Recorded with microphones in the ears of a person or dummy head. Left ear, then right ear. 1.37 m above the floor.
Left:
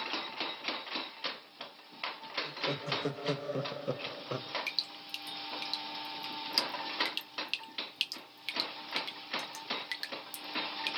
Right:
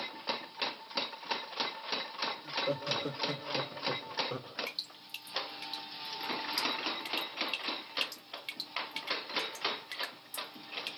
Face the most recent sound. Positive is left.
turn(degrees=30)  # may be behind; listen again after turning